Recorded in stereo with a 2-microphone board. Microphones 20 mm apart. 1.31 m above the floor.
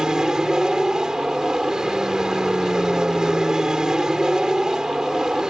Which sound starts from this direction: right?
An aircraft, at 0.0 s.